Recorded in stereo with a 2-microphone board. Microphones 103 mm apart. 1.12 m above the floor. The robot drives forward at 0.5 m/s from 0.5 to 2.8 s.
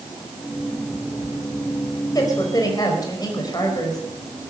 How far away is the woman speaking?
About 4.5 m.